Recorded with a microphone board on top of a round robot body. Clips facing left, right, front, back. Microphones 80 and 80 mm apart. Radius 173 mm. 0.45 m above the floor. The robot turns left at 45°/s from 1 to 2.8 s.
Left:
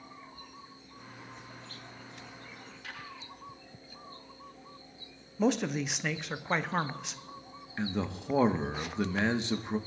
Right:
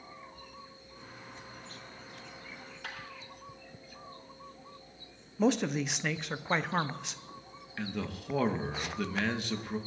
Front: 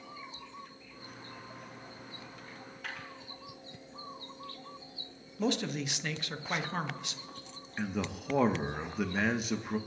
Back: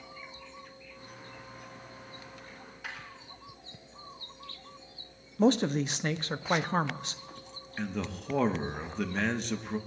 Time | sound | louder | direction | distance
2.5 | a dropped coin | right 2 dB, front 1 dB | 85° right | 5.5 m
5.4 | a man speaking | even, back 7 dB | straight behind | 0.9 m
7.8 | a man speaking | left 3 dB, even | 75° left | 1.2 m